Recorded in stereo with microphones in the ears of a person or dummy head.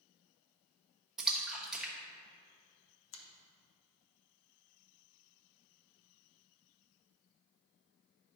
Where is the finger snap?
75° left (ahead or behind), 1.1 m.